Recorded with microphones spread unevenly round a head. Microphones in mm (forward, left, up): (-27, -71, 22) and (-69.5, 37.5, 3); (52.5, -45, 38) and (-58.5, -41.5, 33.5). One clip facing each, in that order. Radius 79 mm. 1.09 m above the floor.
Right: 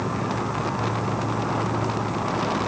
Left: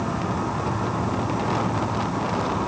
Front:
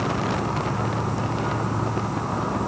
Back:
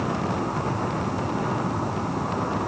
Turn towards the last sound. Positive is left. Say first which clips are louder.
# left 1 dB, front 1 dB
turn(degrees=125)